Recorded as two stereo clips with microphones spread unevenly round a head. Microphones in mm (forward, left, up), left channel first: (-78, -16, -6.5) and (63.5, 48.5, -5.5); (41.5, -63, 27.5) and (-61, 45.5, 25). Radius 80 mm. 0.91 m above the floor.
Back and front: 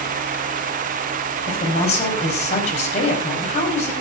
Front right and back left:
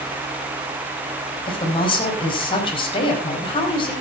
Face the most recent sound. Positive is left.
turn(degrees=-105)